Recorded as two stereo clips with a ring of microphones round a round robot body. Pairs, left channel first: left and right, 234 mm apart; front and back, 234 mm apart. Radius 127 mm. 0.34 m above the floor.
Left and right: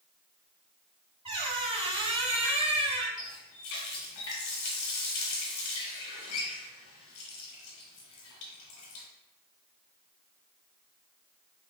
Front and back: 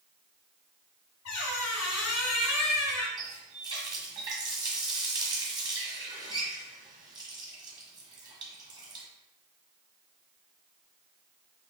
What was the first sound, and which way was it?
A squeak, 25° right.